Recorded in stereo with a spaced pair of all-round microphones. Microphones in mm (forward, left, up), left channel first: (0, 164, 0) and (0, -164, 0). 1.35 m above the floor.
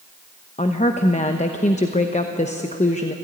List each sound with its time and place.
0.6 s a woman speaking: 20° left (ahead or behind), 0.9 m